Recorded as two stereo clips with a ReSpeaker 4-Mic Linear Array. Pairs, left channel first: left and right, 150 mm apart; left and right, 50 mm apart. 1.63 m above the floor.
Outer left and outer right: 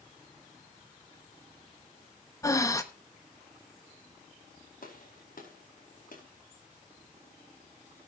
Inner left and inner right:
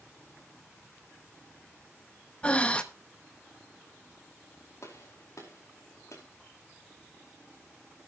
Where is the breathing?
20° left (ahead or behind), 1.1 m.